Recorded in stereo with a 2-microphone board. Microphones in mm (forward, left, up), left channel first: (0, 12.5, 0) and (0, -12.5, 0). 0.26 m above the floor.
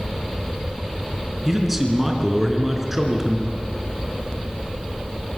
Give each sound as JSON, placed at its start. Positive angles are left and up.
{"t": 1.4, "sound": "a man speaking", "side_deg": -15, "distance_m": 4.0}